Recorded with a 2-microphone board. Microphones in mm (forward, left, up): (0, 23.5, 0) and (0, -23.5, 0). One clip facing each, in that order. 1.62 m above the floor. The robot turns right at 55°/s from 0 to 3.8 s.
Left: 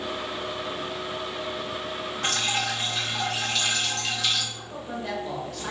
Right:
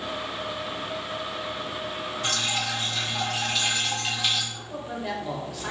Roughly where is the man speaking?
Centre.